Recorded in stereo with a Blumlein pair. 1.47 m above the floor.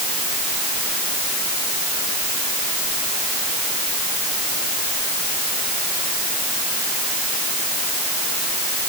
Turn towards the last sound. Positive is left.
No sound to turn to.